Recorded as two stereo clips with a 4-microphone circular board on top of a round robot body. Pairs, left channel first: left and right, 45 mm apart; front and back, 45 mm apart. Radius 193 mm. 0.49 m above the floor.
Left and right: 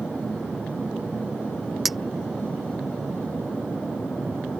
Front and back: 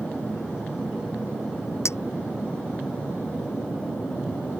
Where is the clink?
5° right.